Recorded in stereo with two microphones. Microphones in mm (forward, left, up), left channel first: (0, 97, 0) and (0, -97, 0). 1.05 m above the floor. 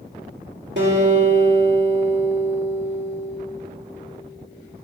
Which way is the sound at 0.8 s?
75° right (ahead or behind).